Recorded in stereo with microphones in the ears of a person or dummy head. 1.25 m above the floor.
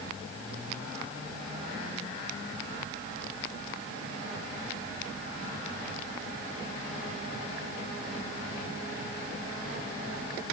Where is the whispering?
I don't hear whispering.